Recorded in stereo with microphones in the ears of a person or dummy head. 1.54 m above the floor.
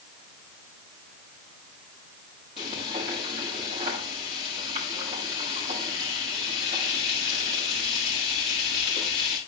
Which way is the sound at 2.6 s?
50° right (ahead or behind).